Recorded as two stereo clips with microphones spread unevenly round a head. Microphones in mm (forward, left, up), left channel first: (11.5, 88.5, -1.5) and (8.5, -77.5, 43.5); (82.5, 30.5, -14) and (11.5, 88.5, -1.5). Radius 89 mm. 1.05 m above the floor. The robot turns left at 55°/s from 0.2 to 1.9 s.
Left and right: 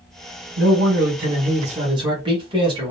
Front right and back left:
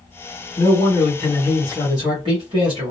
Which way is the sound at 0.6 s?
85° right.